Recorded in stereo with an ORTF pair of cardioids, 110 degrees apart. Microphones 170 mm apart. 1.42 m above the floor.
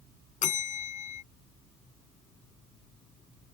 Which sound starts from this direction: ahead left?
A bell, at 0.4 s.